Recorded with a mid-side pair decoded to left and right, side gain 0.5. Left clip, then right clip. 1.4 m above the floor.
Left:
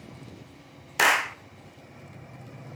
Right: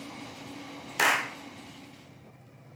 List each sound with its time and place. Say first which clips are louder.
1.0 s a clap: left 4 dB; 25° left, 0.5 m